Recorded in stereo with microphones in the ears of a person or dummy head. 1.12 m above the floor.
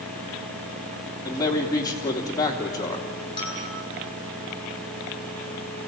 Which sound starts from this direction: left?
A bell, at 3.4 s.